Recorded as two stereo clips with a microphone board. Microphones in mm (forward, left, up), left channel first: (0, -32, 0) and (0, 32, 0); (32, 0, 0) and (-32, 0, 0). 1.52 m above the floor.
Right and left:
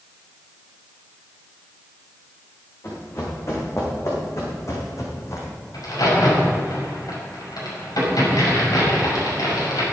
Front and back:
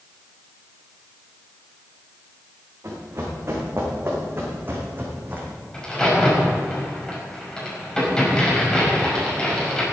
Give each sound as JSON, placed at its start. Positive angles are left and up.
{"t": 2.8, "sound": "running footsteps", "azimuth_deg": -135, "distance_m": 5.5}
{"t": 5.7, "sound": "a crack", "azimuth_deg": -80, "distance_m": 6.0}